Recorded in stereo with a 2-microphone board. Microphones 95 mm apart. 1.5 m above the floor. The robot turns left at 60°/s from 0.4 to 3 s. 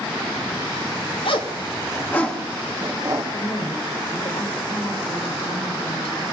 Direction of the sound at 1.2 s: 75° left (ahead or behind).